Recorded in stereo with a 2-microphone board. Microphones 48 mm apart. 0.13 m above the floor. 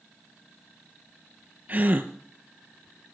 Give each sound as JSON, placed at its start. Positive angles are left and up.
{"t": 1.7, "sound": "a gasp", "side_deg": -35, "distance_m": 1.1}